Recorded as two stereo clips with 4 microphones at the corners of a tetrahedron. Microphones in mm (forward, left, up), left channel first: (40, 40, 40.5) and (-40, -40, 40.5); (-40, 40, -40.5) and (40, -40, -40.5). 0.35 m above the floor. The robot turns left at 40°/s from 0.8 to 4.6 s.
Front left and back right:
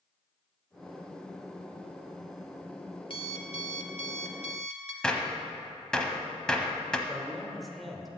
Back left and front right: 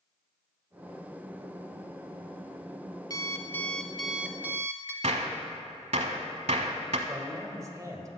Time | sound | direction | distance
3.1 | an alarm clock | 80° left | 1.0 m
5.0 | a gunshot | 40° right | 0.8 m
7.1 | a man speaking | 45° right | 1.2 m